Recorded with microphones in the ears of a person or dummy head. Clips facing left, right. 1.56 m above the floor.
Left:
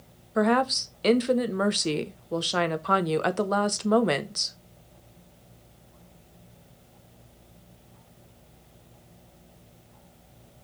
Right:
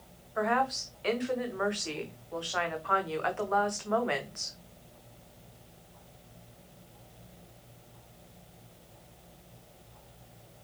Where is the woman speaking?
55° left (ahead or behind), 0.9 m.